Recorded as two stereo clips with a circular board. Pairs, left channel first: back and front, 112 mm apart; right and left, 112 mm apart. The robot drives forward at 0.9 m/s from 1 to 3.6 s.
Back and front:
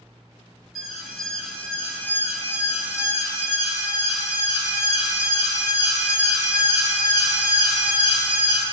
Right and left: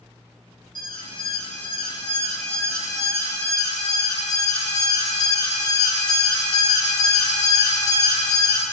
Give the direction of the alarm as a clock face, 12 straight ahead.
3 o'clock.